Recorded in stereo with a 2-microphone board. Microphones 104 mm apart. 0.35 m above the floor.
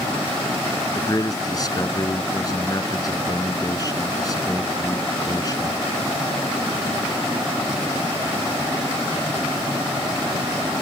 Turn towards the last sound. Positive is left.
turn(degrees=35)  # may be behind; listen again after turning